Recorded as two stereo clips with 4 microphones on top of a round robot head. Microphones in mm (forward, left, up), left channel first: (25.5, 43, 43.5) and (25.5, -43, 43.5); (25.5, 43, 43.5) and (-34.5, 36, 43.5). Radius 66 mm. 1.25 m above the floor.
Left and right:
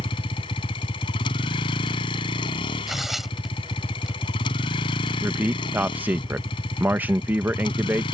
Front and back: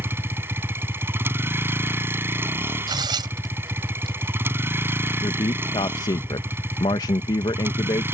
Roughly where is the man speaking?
Ahead.